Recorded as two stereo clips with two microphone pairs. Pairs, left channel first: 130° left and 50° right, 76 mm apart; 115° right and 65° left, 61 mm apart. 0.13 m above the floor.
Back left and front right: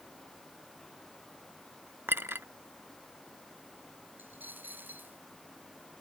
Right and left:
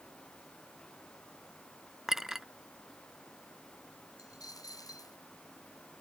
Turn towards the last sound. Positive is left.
turn(degrees=-115)